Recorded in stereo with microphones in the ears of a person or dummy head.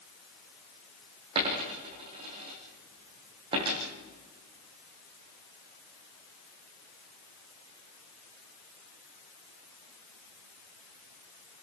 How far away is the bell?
I don't hear a bell.